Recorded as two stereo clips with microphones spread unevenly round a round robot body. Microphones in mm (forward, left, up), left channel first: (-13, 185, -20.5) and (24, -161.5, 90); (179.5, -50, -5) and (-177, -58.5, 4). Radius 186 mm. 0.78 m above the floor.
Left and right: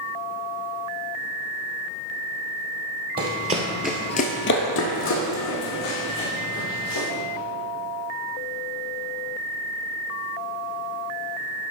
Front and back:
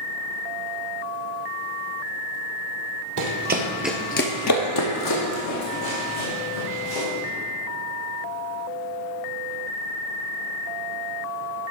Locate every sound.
3.2 s running footsteps: 130° right, 1.4 m; by 7.1 s 40° left, 4.5 m